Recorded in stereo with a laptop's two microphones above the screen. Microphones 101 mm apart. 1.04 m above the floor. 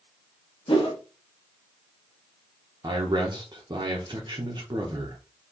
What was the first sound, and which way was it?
A whoosh, 70° left (ahead or behind).